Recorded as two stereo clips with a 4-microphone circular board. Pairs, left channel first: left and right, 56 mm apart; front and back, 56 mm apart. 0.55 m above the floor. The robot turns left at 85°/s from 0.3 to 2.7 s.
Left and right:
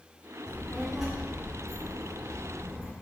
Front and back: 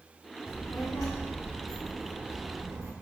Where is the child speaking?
35° left, 0.6 m; by 2.9 s 155° right, 0.6 m.